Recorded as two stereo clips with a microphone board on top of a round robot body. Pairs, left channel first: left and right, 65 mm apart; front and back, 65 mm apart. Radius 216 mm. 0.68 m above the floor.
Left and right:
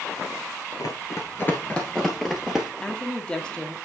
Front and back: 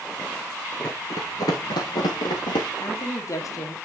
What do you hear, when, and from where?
0.8 s running footsteps: 75° left, 0.8 m; by 2.7 s 5° right, 1.2 m
2.8 s a woman speaking: 20° left, 1.7 m